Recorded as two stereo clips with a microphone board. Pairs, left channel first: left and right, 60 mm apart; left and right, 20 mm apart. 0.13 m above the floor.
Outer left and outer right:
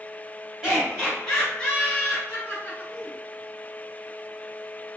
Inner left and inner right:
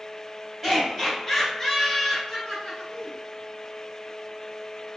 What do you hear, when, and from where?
0.6 s laughter: 5° right (ahead or behind), 1.8 m; by 3.1 s 30° left (ahead or behind), 1.9 m